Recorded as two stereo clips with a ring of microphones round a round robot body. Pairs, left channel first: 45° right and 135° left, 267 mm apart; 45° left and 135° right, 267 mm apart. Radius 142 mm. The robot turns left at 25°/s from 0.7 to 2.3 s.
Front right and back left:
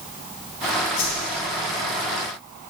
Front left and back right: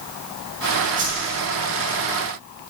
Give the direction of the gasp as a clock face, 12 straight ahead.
No gasp in this recording.